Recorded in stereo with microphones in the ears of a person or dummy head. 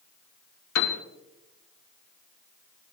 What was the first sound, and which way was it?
A piano, 75° left (ahead or behind).